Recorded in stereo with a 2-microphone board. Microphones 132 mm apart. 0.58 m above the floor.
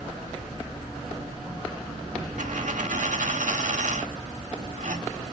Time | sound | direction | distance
2.4 | a dropped coin | 80° right | 0.8 m